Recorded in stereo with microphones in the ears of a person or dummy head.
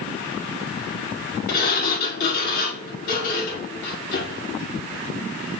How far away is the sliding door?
About 5 m.